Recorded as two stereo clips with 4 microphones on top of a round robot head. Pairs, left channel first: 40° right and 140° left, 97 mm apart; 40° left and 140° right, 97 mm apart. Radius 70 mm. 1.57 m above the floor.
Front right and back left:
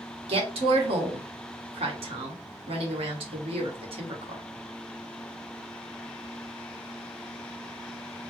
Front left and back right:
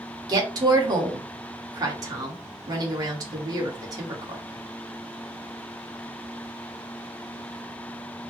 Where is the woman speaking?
165° left, 1.3 m.